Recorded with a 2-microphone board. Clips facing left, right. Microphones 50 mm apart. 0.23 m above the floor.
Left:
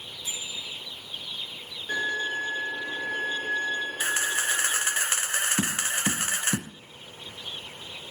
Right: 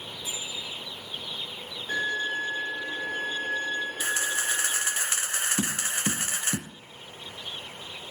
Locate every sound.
0.2 s a bicycle bell: 5° right (ahead or behind), 5.5 m
1.9 s a violin: 10° left (ahead or behind), 9 m
4.0 s a camera shutter: 35° left (ahead or behind), 1.3 m
5.6 s tapping: 35° left (ahead or behind), 0.6 m